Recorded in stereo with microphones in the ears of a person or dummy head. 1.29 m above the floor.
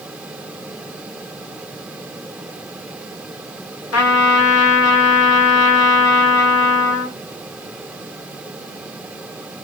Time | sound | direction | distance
3.9 | a trumpet | 75° left (ahead or behind) | 1.7 m